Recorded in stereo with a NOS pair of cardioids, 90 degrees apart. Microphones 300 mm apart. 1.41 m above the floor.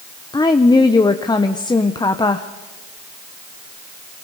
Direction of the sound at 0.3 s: 15° left.